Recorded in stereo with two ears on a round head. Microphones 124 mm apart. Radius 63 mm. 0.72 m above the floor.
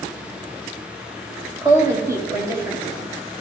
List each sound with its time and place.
1.6 s a woman speaking: 25° right (ahead or behind), 3.5 m; by 3.4 s 20° right (ahead or behind), 4.5 m